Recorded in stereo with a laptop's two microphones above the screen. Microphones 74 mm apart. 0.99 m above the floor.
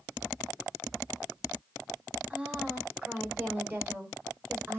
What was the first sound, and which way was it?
A woman speaking, 15° right (ahead or behind).